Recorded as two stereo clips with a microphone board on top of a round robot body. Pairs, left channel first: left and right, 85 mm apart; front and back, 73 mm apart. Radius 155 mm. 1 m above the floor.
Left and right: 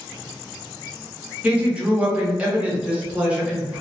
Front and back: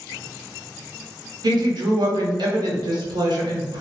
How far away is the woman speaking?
About 0.9 m.